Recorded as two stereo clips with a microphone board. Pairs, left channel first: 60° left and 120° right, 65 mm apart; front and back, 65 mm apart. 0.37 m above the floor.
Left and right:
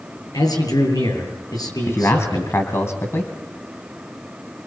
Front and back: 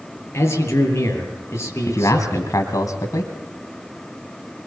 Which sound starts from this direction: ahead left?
A man speaking, at 0.3 s.